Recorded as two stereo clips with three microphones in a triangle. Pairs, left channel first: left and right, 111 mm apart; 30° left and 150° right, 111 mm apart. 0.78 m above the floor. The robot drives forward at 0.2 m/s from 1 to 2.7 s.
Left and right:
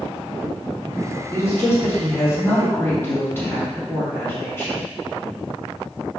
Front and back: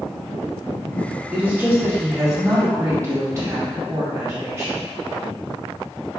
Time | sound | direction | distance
1.3 | a woman speaking | 145° left | 0.9 m